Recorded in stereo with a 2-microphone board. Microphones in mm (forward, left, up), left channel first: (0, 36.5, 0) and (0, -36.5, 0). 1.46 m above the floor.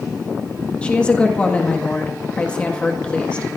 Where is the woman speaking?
15° left (ahead or behind), 1.8 m.